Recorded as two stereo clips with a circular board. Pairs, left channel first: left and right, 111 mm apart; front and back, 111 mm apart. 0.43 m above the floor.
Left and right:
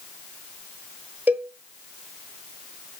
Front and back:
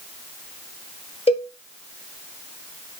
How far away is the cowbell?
About 0.8 m.